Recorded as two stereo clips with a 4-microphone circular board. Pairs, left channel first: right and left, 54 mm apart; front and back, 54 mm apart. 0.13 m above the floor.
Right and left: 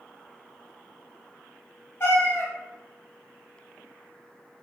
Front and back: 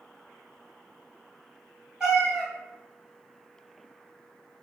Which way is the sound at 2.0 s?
105° right.